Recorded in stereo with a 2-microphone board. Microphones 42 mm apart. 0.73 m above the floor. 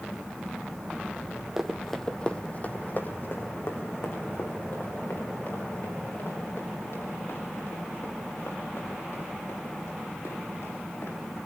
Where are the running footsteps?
10° right (ahead or behind), 1.7 m; by 11.1 s 80° left, 13.5 m.